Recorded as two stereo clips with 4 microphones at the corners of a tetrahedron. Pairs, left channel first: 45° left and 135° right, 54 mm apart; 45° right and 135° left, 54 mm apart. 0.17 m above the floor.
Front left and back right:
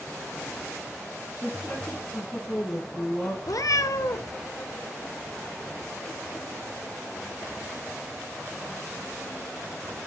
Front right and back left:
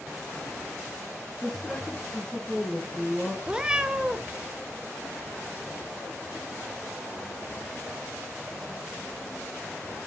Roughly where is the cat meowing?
Ahead left.